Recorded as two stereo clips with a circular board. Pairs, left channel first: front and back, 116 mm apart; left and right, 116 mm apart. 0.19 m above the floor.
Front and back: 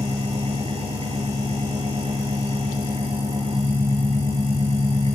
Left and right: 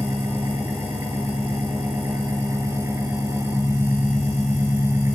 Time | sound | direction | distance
0.0 | an engine running | 155° right | 4 m